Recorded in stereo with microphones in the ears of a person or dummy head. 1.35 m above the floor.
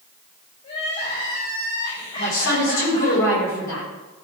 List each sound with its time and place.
0.6 s crying: 35° left (ahead or behind), 5.5 m
2.2 s a woman speaking: 60° left (ahead or behind), 5 m